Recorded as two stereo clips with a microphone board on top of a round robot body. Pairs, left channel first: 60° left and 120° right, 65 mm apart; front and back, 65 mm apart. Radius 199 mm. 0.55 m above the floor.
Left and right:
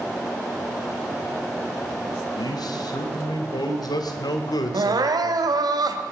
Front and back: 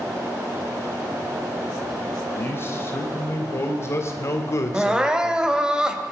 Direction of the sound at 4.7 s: 100° right.